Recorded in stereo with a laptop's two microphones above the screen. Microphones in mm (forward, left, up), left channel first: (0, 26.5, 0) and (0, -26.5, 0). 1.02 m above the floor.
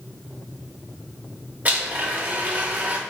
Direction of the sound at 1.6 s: 30° right (ahead or behind).